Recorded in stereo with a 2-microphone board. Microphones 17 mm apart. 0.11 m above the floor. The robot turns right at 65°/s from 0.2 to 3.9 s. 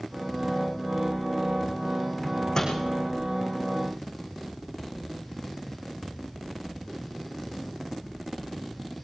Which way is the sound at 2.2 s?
15° left (ahead or behind).